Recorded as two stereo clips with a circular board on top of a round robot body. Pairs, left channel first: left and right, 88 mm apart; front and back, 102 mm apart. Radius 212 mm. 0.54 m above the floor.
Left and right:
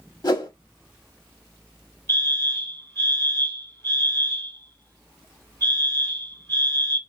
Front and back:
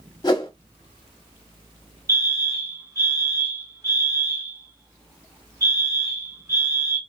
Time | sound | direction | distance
0.2 | a whoosh | 50° left | 1.1 m
2.1 | a fire alarm | 135° left | 2.5 m